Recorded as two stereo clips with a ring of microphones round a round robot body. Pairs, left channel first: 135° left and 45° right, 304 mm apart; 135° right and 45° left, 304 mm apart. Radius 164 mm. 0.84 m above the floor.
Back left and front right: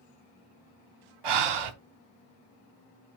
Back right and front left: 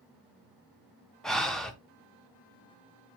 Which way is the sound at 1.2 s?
45° right.